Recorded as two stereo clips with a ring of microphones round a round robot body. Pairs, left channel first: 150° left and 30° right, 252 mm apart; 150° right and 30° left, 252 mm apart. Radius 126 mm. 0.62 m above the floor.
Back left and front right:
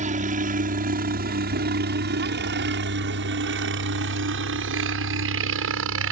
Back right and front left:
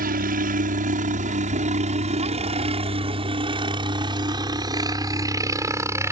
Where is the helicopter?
5° left; by 6.1 s 45° right.